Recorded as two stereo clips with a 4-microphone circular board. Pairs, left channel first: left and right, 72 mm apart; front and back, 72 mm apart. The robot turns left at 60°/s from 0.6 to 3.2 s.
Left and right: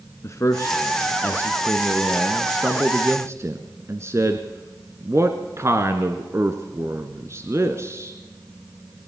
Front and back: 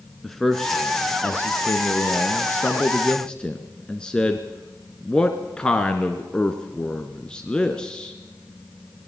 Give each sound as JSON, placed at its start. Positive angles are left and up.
{"t": 0.2, "sound": "a man speaking", "azimuth_deg": 85, "distance_m": 1.3}